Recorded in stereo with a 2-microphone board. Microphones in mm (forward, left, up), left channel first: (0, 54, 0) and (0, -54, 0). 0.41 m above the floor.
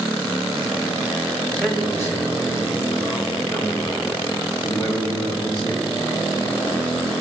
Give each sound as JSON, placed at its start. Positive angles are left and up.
{"t": 1.5, "sound": "a man speaking", "side_deg": 10, "distance_m": 1.8}